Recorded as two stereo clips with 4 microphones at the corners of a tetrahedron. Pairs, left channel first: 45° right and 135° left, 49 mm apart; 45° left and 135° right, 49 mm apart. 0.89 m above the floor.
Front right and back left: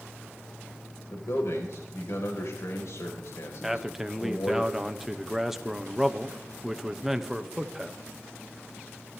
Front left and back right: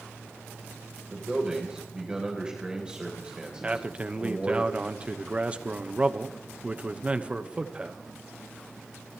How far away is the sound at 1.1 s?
About 3 m.